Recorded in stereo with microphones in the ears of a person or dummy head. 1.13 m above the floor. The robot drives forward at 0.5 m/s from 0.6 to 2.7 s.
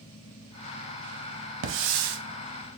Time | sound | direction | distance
1.6 | a hiss | 80° right | 1.0 m